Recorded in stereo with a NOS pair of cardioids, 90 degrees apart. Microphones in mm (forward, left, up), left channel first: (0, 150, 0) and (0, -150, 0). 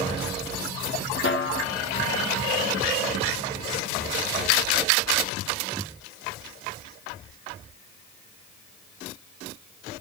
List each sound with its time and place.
1.2 s a snare drum: 40° left, 1.0 m